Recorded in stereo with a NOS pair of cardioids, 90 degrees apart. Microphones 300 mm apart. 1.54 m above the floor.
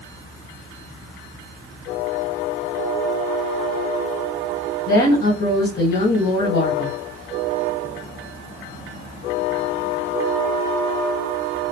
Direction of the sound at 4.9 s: 60° left.